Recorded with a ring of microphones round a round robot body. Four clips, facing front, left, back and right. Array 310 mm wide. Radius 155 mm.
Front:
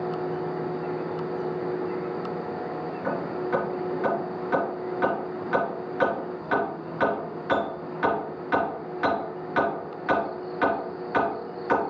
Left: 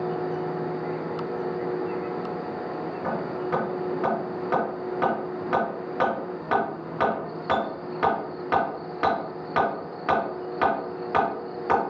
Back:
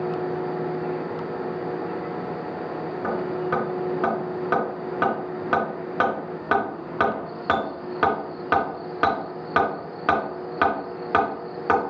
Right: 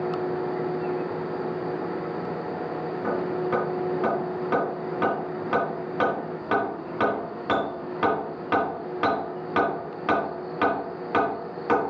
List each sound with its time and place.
3.0 s hammering: straight behind, 4 m